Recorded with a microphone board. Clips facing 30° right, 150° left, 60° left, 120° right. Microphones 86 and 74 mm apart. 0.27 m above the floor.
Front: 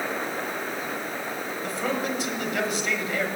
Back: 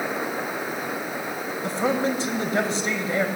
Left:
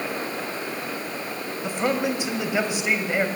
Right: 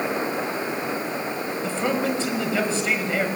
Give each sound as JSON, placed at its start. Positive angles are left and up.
{"t": 1.6, "sound": "a man speaking", "azimuth_deg": 125, "distance_m": 1.3}